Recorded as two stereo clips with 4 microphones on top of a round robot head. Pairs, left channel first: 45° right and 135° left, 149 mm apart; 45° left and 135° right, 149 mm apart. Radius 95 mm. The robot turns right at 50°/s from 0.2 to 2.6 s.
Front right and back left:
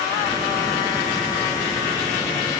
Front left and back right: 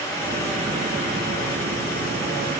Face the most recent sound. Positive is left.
No sound to turn to.